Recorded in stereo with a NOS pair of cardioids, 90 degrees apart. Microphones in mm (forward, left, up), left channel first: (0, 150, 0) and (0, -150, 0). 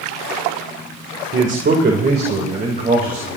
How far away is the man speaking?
About 1.6 m.